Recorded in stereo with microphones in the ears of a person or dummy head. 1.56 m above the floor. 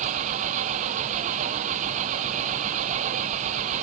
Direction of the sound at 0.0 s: 35° right (ahead or behind).